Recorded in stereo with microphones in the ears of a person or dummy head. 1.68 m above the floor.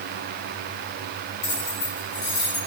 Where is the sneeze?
No sneeze in this recording.